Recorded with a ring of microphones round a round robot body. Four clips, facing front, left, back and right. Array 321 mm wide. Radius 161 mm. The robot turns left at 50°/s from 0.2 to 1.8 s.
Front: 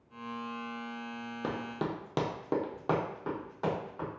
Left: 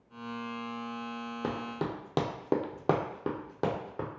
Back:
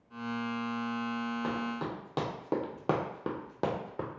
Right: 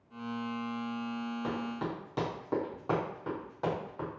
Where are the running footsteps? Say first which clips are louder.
Left 4 dB, back 1 dB; 55° left, 0.9 m; by 4.1 s 145° left, 1.2 m.